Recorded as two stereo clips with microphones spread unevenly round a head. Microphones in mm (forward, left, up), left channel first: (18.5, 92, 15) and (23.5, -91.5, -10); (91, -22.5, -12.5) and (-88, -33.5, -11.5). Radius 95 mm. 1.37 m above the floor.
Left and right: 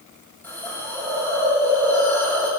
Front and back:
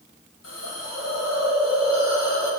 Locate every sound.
0.4 s a hiss: 10° left, 6.5 m